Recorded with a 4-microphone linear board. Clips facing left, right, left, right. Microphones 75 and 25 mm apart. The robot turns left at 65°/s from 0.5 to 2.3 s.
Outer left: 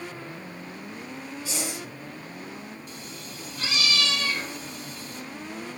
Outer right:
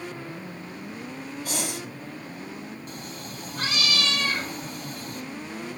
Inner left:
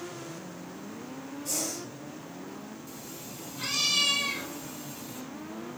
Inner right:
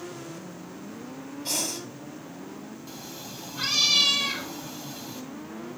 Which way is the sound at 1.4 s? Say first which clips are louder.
Outer right 2 dB, inner right 4 dB; 50° right (ahead or behind).